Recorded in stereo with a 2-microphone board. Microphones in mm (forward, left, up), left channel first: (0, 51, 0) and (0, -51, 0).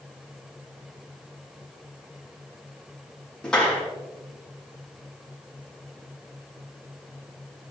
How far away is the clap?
About 5 m.